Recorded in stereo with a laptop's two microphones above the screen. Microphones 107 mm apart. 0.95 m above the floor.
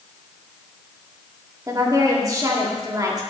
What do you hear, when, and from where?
1.7 s a woman speaking: 30° right (ahead or behind), 2 m